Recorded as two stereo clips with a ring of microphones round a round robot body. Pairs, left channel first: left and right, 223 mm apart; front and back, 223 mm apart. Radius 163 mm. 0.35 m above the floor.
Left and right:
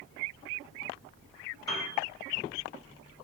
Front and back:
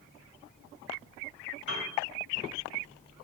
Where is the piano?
20° left, 2.5 m.